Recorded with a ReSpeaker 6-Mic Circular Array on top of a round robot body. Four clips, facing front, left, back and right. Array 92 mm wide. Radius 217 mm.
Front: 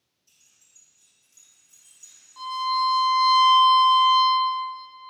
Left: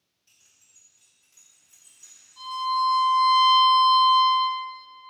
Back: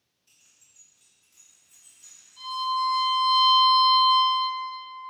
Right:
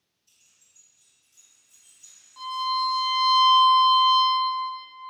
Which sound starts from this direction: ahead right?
A violin, at 2.4 s.